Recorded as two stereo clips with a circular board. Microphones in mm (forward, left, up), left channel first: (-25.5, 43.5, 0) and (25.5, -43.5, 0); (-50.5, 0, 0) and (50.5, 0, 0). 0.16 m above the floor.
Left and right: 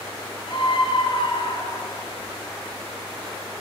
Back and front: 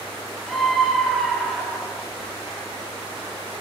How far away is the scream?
About 3.5 m.